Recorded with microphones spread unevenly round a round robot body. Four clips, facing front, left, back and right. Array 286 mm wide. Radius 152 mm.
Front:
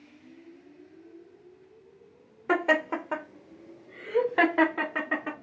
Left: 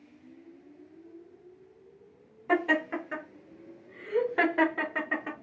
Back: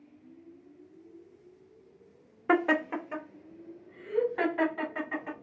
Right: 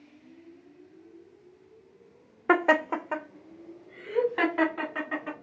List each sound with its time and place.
2.5 s laughter: 105° right, 0.9 m; by 5.3 s 25° left, 2 m